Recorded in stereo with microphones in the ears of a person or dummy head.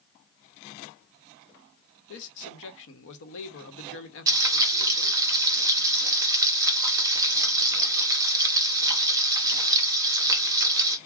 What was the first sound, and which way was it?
A man speaking, 70° left (ahead or behind).